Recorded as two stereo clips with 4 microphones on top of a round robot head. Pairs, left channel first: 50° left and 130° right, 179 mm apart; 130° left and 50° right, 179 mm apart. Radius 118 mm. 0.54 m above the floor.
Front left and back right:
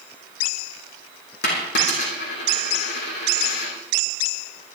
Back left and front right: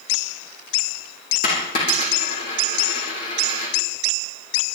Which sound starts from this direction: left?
A dropped coin, at 1.4 s.